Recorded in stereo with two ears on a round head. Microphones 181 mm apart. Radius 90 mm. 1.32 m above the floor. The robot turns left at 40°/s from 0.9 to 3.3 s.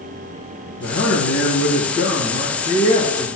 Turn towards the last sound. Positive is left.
turn(degrees=10)